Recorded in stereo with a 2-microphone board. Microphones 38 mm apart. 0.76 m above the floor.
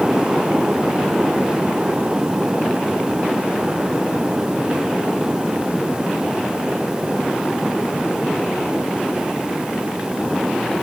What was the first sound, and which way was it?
Only background noise.